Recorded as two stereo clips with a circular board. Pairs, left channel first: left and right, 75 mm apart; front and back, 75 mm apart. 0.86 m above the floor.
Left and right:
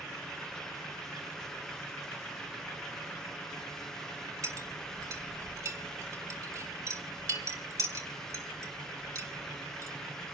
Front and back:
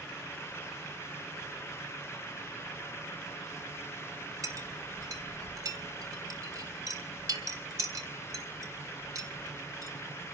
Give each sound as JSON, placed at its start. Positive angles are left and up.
{"t": 4.4, "sound": "a clink", "azimuth_deg": -140, "distance_m": 3.0}